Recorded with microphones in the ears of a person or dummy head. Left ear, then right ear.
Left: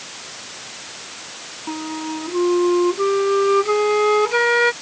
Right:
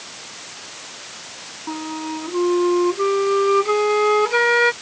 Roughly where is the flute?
Centre.